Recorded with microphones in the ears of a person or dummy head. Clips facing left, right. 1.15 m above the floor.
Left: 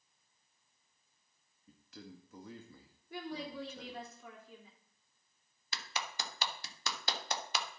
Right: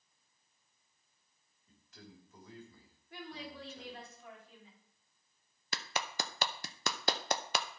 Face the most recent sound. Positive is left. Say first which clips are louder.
# right 4 dB
turn(degrees=-45)  # may be behind; listen again after turning